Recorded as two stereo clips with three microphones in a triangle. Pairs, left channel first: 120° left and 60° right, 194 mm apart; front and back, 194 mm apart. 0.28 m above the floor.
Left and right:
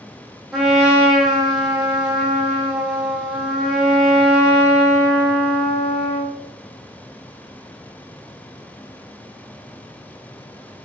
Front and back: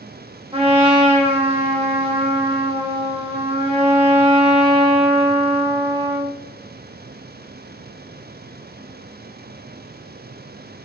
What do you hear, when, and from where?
0.5 s a trumpet: 145° right, 0.6 m